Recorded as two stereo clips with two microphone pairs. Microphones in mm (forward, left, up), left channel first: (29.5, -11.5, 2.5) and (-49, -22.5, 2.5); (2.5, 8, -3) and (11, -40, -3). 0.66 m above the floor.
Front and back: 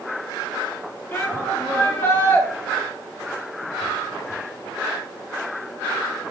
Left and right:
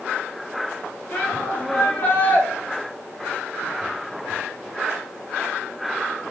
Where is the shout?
65° left, 1.4 m.